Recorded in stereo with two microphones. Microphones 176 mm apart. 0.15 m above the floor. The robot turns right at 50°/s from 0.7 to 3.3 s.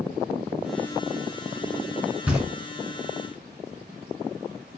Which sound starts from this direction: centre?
Knocking, at 2.3 s.